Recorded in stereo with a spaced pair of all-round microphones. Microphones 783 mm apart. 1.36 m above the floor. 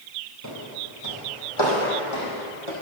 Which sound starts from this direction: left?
Footsteps, at 0.4 s.